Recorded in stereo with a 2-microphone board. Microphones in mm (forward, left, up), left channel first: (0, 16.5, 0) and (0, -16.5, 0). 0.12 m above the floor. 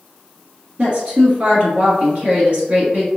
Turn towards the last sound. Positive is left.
turn(degrees=-45)  # may be behind; listen again after turning